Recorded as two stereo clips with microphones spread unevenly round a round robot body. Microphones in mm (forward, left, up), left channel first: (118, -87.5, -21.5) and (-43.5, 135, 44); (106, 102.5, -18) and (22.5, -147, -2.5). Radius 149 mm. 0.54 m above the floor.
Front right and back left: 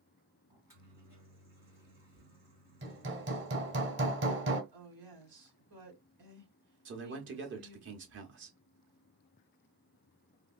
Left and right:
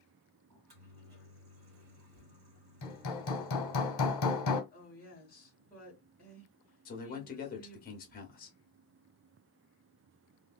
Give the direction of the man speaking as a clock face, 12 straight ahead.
9 o'clock.